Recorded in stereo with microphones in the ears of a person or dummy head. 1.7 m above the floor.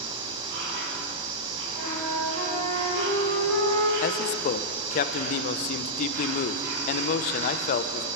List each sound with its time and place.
0.0 s an insect: 70° right (ahead or behind), 7.5 m
1.8 s a flute: 75° right (ahead or behind), 6.5 m
4.0 s a man speaking: 50° left (ahead or behind), 0.8 m